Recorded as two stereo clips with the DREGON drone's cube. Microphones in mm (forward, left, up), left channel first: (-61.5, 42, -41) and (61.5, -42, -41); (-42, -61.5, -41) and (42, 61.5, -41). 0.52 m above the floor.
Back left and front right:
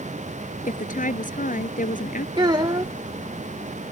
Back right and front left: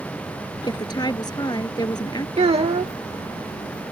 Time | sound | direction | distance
0.6 | a woman speaking | 175° left | ?
2.4 | a child speaking | 20° left | ?